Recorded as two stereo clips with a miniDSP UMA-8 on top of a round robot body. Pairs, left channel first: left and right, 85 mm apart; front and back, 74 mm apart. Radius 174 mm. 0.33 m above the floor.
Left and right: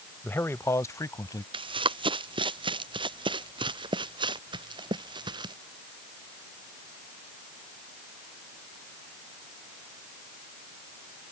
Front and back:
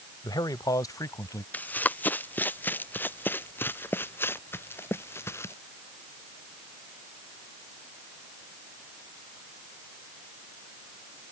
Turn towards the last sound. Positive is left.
turn(degrees=-55)